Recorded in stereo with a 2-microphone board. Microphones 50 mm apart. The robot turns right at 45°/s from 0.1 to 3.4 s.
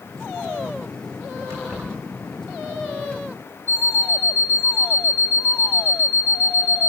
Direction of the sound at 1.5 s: 60° right (ahead or behind).